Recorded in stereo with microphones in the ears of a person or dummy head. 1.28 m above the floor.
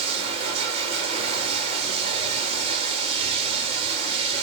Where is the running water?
40° right (ahead or behind), 2 m.